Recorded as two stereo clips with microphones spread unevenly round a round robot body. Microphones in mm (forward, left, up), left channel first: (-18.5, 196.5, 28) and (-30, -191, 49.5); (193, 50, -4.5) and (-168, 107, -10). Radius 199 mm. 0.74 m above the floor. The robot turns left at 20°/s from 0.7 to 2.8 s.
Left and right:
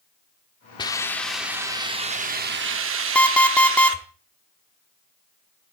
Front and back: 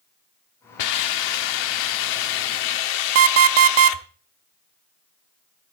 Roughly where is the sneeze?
I don't hear a sneeze.